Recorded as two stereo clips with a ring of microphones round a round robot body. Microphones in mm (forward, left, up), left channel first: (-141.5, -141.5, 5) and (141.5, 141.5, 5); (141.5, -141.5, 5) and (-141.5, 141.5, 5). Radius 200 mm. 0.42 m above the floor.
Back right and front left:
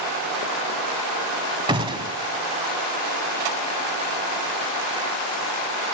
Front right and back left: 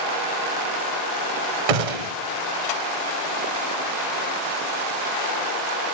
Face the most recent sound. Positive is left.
turn(degrees=125)